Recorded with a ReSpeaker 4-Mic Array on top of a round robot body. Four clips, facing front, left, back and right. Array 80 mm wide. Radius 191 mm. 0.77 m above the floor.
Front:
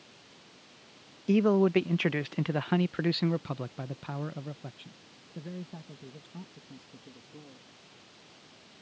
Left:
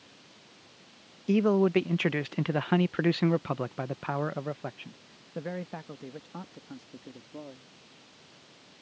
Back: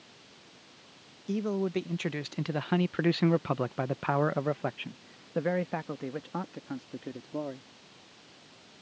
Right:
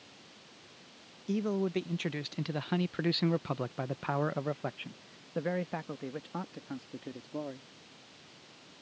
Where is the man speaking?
45° left; by 7.7 s 160° right.